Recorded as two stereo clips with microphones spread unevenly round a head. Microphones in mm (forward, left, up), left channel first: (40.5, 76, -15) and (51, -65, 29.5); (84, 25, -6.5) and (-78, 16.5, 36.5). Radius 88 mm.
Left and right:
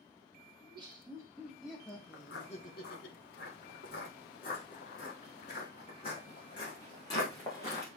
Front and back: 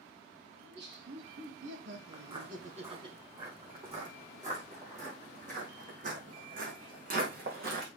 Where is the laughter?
150° right, 3 m; by 3.1 s 120° left, 1.5 m.